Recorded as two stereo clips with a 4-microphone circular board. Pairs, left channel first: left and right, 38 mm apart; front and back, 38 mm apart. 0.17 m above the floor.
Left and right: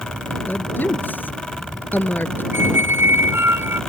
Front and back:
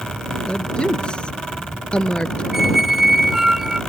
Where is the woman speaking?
65° left.